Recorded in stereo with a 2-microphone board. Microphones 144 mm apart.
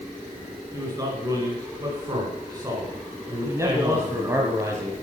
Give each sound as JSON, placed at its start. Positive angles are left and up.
{"t": 0.7, "sound": "a man speaking", "side_deg": -25, "distance_m": 2.0}
{"t": 3.5, "sound": "a man speaking", "side_deg": -20, "distance_m": 1.2}